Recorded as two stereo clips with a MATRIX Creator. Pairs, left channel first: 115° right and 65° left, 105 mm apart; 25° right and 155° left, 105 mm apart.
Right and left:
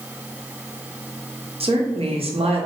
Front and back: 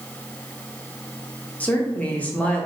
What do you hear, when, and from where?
1.6 s a woman speaking: 55° left, 1.1 m